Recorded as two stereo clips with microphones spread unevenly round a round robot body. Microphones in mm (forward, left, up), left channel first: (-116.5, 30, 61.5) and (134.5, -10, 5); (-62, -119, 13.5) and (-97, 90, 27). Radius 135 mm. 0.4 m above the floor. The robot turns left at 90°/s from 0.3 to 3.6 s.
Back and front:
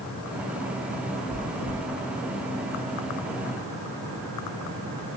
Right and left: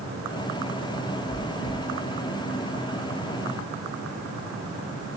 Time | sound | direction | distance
1.3 | chewing | 95° right | 3.5 m